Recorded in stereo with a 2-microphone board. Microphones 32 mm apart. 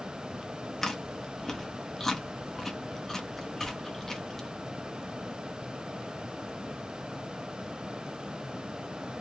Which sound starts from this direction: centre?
Chewing, at 0.8 s.